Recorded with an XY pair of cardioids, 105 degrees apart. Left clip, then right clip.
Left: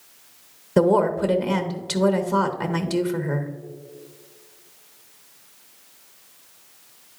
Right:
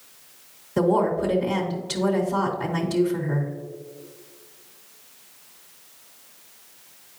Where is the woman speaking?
70° left, 1.0 m.